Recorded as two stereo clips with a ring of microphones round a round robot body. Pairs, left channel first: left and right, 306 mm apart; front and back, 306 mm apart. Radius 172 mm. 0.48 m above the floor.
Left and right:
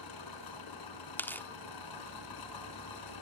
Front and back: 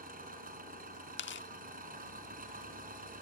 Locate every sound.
0.0 s an engine running: 115° left, 4 m
1.2 s tearing paper: 10° left, 1.2 m